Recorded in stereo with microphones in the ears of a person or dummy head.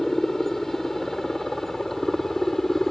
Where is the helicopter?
15° left (ahead or behind).